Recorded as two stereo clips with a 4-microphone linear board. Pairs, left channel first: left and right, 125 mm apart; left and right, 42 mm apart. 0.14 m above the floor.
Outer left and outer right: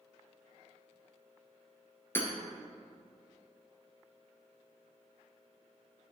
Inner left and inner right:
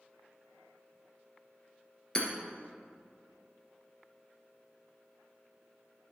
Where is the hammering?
20° left (ahead or behind), 1.9 m.